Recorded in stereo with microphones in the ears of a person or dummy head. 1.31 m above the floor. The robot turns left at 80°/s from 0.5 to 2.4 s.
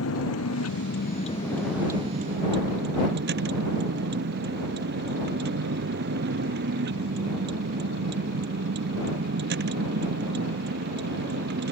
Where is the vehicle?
95° left; by 11.7 s 60° right.